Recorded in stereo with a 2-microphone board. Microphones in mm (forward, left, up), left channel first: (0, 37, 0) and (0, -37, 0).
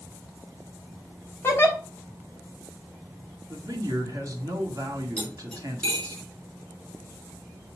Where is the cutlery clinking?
15° left (ahead or behind), 4 m.